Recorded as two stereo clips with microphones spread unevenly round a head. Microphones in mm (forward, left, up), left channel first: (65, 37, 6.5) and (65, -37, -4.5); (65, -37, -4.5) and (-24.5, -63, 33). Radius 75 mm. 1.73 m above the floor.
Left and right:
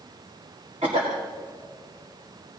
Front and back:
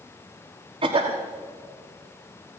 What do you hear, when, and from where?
0.8 s a cough: 140° right, 1.7 m